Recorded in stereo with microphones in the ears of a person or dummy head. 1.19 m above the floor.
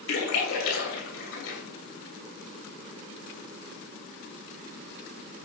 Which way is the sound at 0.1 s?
80° left.